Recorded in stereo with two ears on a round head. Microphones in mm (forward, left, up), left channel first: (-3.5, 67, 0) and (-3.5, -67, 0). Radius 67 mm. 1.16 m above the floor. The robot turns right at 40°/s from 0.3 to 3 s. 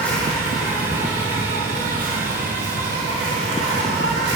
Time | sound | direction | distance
0.0 | an insect | 170° left | 1.5 m